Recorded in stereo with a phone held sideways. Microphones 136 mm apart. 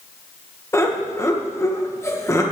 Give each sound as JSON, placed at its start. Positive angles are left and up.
{"t": 0.7, "sound": "laughter", "side_deg": 20, "distance_m": 1.6}